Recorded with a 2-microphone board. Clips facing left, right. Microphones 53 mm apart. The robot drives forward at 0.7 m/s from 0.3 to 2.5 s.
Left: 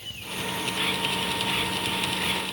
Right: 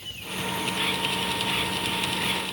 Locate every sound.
Only background noise.